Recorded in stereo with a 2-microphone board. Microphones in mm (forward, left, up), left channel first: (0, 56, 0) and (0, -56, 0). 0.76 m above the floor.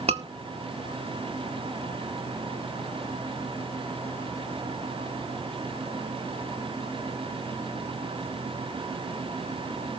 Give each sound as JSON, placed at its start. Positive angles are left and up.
{"t": 0.1, "sound": "a scream", "side_deg": -70, "distance_m": 2.0}